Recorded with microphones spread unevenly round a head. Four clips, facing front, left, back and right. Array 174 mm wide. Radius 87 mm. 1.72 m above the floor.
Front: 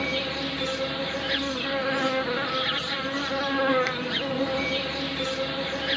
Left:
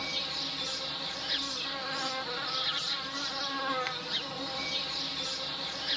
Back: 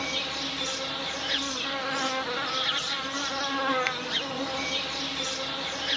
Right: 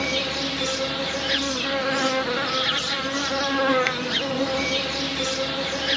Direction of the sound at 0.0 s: 70° right.